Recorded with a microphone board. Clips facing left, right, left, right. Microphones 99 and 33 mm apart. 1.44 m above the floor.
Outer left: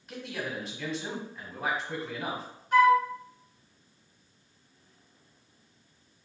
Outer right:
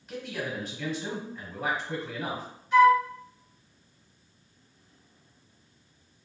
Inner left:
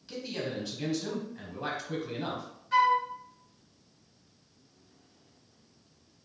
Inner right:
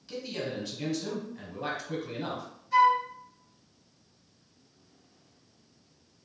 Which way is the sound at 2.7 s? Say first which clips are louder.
Outer right 2 dB, inner right 2 dB; 50° left (ahead or behind).